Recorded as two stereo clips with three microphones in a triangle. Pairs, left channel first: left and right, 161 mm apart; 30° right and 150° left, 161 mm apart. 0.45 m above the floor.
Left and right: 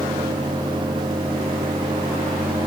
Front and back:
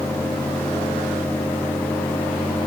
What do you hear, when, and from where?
Only background noise.